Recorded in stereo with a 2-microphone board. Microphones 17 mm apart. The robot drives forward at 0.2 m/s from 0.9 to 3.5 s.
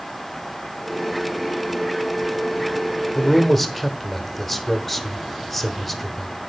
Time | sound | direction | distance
3.1 | a man speaking | 5° left (ahead or behind) | 1.2 m